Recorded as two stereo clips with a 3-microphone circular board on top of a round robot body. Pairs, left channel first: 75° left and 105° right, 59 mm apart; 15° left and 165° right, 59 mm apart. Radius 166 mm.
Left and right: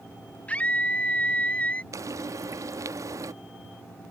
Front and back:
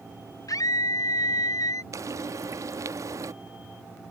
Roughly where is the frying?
Behind right.